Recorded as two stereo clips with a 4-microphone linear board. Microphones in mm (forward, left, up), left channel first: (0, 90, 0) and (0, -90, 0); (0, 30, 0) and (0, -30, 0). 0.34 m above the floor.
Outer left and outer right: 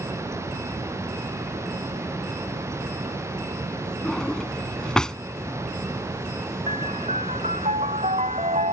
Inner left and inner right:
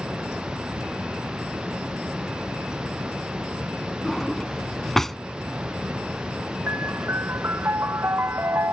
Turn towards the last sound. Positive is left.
turn(degrees=-40)  # may be behind; listen again after turning